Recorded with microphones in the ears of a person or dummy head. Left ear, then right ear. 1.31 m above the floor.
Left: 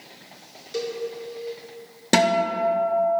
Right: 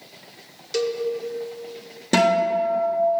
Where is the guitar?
20° left (ahead or behind), 0.6 m.